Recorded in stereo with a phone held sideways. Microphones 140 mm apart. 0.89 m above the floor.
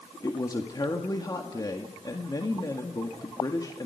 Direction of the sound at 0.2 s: 30° left (ahead or behind).